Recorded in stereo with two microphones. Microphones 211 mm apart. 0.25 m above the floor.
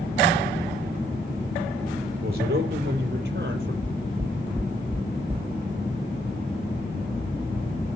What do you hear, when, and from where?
2.2 s a man speaking: 50° right (ahead or behind), 6.5 m; by 3.7 s 55° right (ahead or behind), 5.5 m
3.8 s knocking: 10° right (ahead or behind), 0.6 m